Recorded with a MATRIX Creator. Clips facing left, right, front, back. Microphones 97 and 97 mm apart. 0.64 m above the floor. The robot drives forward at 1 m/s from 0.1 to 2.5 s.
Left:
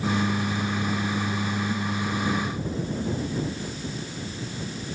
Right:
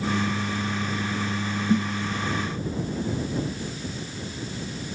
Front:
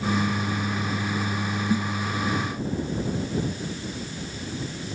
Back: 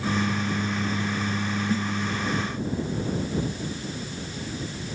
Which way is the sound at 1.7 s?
75° right.